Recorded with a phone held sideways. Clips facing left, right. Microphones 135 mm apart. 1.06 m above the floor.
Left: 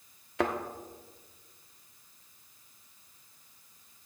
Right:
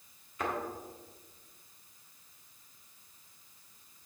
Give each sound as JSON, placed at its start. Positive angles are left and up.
{"t": 0.4, "sound": "a thud", "side_deg": 75, "distance_m": 1.1}